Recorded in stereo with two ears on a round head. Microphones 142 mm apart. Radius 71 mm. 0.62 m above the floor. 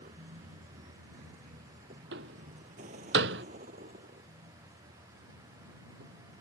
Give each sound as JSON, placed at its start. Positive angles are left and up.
{"t": 0.0, "sound": "a vehicle", "side_deg": -50}
{"t": 2.1, "sound": "a door slam", "side_deg": -85}